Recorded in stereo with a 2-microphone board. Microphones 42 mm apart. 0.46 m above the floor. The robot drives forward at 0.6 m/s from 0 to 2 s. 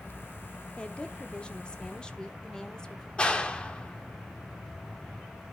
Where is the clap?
20° left (ahead or behind), 1.0 m.